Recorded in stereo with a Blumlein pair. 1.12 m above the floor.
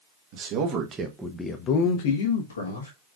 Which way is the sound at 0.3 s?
45° right.